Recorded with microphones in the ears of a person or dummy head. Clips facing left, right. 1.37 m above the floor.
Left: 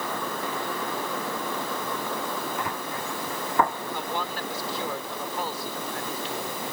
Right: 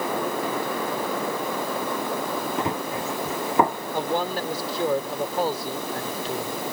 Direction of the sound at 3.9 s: 45° right (ahead or behind).